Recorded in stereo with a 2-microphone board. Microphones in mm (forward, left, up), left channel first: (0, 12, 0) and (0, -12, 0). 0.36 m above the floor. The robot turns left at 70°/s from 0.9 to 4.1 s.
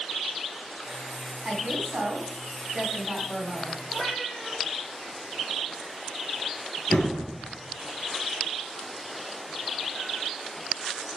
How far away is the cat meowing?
About 7 m.